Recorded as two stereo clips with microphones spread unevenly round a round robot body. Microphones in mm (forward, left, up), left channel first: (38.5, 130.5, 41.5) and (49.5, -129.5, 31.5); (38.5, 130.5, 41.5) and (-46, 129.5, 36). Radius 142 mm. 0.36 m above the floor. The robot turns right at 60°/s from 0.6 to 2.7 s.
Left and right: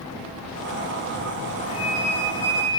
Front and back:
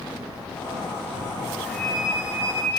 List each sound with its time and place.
1.7 s a flute: 75° left, 2.5 m; by 2.7 s 135° left, 2.5 m